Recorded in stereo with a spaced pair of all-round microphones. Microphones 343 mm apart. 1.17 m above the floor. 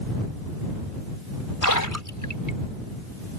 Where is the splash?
65° left (ahead or behind).